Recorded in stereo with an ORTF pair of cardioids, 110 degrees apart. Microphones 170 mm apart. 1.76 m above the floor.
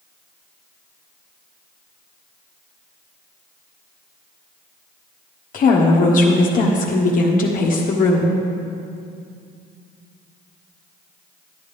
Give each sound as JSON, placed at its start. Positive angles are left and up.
{"t": 5.5, "sound": "a woman speaking", "azimuth_deg": 55, "distance_m": 1.5}